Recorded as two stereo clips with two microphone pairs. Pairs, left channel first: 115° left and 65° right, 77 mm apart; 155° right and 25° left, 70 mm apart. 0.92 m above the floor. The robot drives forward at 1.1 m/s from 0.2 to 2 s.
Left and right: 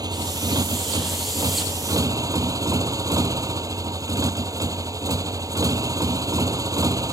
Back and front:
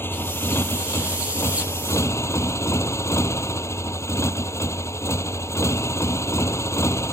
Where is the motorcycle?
95° right; by 7.1 s 110° right.